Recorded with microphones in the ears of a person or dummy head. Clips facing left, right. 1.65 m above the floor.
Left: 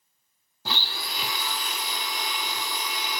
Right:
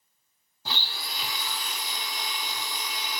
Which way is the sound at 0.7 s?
60° left (ahead or behind).